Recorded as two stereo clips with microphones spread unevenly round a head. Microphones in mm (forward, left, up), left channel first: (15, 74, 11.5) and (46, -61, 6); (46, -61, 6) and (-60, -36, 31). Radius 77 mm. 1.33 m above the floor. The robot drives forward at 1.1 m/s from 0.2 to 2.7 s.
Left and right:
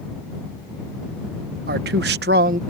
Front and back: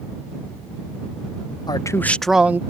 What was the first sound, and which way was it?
A man speaking, 65° right.